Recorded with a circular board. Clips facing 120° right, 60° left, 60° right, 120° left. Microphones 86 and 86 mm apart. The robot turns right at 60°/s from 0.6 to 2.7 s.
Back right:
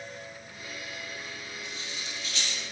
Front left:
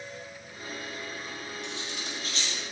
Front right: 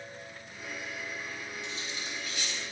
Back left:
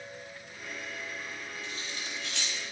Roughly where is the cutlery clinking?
Left.